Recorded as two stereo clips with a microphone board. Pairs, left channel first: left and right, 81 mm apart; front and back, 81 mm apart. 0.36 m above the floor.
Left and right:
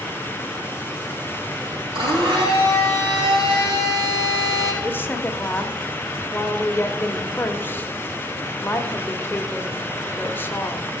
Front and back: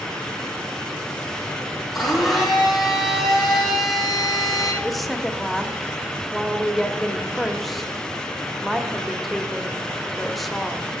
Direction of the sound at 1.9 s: 90° right.